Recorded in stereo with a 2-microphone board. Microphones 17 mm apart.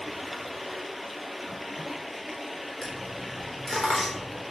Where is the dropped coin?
20° left (ahead or behind), 4 m.